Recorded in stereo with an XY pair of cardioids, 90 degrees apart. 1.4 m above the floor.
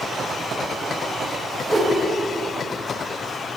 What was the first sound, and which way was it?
A whoosh, 25° right.